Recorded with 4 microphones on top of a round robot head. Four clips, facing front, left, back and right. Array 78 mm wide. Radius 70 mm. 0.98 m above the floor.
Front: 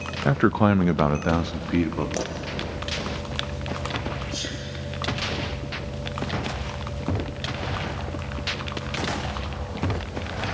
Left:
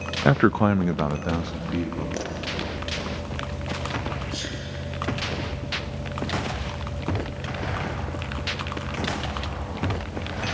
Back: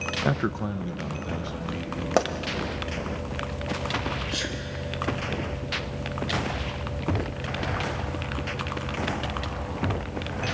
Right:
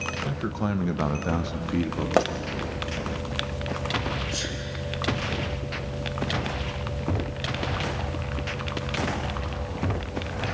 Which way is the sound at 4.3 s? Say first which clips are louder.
Right 1 dB, back 2 dB; 165° right.